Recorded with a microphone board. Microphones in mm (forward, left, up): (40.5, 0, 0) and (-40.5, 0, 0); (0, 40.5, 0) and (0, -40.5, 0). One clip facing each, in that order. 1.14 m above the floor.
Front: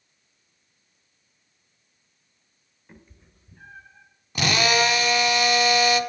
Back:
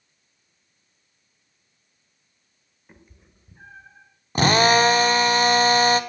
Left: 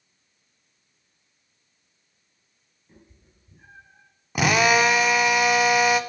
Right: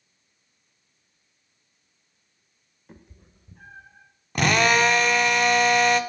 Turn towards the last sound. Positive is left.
turn(degrees=170)